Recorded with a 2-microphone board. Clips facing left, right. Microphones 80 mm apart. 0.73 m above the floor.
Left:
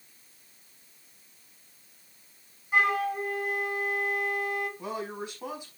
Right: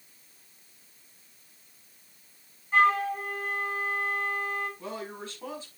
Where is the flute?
10° left (ahead or behind), 6 m.